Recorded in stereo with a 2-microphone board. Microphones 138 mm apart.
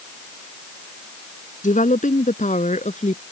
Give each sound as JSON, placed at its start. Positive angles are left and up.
{"t": 1.6, "sound": "a woman speaking", "side_deg": 70}